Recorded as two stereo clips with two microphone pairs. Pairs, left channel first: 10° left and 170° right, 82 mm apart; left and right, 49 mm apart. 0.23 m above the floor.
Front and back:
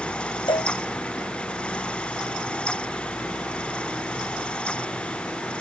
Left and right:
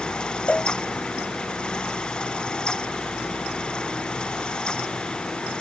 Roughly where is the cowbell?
Ahead left.